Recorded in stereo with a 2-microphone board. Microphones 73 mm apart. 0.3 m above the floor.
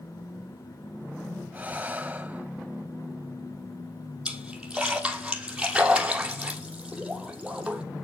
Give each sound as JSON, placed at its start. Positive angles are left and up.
{"t": 1.5, "sound": "breathing", "side_deg": -20, "distance_m": 1.1}
{"t": 4.2, "sound": "a splash", "side_deg": -10, "distance_m": 3.0}